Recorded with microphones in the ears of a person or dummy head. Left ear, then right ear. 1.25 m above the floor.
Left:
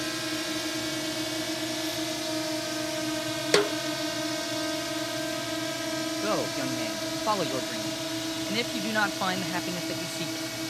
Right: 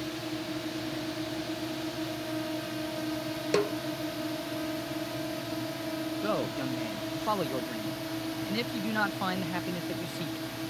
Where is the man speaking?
15° left (ahead or behind).